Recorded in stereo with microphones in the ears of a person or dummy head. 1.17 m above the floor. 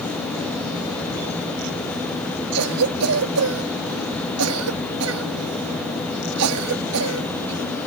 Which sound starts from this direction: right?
A cough, at 2.5 s.